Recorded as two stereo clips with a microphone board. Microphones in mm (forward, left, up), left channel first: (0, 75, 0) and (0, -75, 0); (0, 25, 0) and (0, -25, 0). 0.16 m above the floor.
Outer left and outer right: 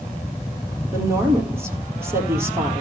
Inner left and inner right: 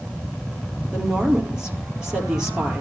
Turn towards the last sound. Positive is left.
turn(degrees=-15)  # may be behind; listen again after turning